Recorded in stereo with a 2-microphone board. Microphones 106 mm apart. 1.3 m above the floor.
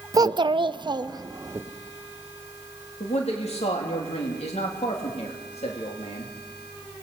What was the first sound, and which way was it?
A child speaking, 30° right (ahead or behind).